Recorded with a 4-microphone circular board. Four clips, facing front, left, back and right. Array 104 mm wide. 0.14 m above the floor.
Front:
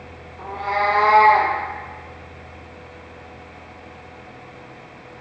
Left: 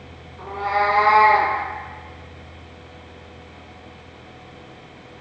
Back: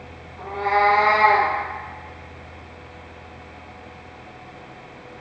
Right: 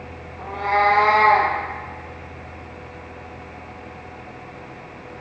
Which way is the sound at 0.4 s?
130° right.